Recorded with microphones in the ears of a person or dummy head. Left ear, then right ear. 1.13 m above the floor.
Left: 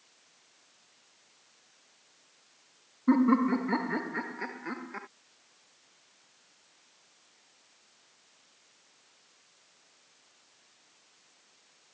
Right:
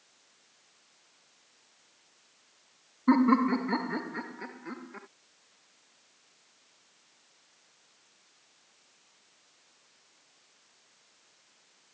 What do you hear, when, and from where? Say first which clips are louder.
3.1 s laughter: right 1 dB; 25° right (ahead or behind); by 5.1 s 40° left (ahead or behind)